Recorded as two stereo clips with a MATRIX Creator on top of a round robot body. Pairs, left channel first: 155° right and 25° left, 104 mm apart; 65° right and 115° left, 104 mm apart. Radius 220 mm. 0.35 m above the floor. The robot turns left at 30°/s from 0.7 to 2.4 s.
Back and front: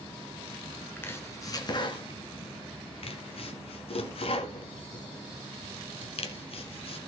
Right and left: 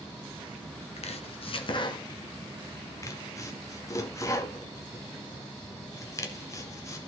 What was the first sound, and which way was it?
Chopping, 85° right.